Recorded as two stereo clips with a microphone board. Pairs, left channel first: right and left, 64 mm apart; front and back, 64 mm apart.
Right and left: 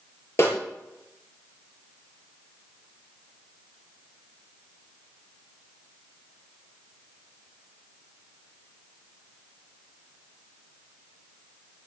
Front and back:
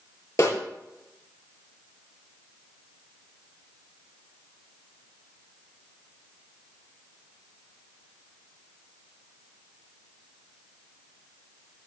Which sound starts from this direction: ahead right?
A snare drum, at 0.4 s.